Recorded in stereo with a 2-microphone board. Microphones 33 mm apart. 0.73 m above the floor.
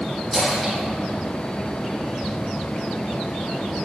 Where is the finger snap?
No finger snap in this recording.